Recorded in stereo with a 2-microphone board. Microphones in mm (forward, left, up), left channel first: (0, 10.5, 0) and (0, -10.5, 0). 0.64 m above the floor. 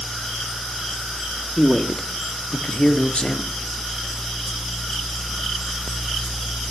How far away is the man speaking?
About 1.6 m.